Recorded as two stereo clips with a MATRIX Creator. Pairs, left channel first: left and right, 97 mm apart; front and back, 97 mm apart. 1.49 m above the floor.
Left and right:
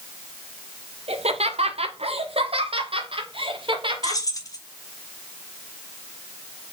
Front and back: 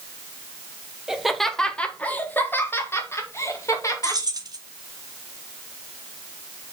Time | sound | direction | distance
1.1 | laughter | 95° right | 0.9 m
4.0 | keys jangling | 135° left | 1.1 m